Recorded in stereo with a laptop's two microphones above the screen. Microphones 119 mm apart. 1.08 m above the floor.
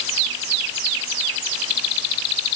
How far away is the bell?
I don't hear a bell.